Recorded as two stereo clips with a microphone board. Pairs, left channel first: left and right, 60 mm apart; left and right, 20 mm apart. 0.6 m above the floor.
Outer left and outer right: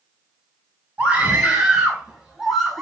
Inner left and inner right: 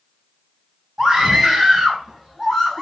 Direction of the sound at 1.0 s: 20° right (ahead or behind).